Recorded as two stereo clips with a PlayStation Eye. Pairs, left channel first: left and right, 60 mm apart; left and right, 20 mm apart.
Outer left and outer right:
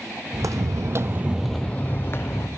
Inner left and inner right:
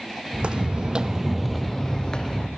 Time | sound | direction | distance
0.3 | footsteps | 70° right (ahead or behind) | 1.0 m